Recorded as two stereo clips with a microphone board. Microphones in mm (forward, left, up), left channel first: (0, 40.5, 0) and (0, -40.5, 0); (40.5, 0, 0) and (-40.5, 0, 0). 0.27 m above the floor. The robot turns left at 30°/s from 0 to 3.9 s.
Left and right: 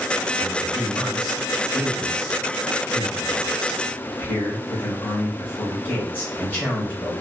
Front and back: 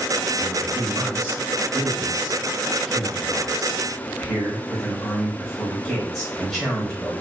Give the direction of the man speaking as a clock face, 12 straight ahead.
6 o'clock.